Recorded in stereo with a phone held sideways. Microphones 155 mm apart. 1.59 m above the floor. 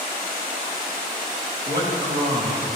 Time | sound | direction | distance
1.7 | a man speaking | 75° right (ahead or behind) | 2.5 m